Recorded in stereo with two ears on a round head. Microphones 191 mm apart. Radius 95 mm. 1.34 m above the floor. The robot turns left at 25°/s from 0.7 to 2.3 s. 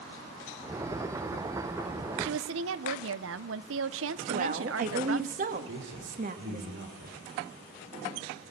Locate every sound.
2.2 s a woman speaking: 70° right (ahead or behind), 1.0 m
4.3 s a woman speaking: 40° right (ahead or behind), 1.9 m
5.7 s a man speaking: 65° right (ahead or behind), 4.5 m